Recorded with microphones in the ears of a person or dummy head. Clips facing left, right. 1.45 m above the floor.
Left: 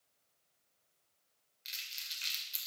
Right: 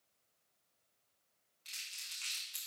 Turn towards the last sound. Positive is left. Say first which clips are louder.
# left 3 dB
turn(degrees=25)  # may be behind; listen again after turning